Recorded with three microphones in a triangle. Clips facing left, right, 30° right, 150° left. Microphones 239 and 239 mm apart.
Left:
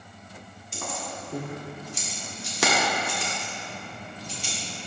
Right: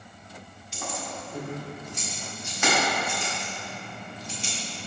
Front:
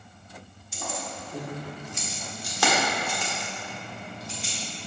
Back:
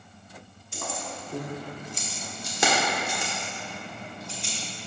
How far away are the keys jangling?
About 1.3 m.